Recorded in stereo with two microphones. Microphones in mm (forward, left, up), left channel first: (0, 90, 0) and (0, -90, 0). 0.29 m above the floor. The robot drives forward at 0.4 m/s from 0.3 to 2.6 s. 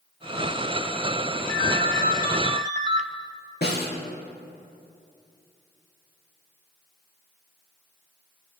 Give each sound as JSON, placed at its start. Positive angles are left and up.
{"t": 1.5, "sound": "a ringtone", "side_deg": -45, "distance_m": 0.9}
{"t": 3.6, "sound": "a snare drum", "side_deg": 65, "distance_m": 3.5}